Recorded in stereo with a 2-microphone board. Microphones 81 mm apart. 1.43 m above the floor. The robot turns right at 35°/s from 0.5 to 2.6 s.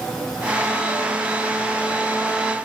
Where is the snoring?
I don't hear snoring.